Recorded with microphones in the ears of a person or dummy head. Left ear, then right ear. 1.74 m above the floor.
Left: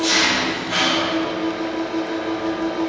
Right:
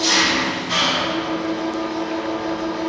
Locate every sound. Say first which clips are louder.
0.0 s an engine running: right 1 dB; 70° right (ahead or behind), 3 m